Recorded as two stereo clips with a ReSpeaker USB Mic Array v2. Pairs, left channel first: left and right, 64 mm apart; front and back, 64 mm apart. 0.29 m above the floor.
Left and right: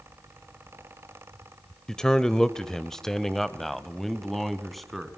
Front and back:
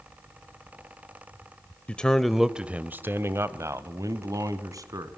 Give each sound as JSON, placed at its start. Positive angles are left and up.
{"t": 1.9, "sound": "a man speaking", "azimuth_deg": 25, "distance_m": 0.9}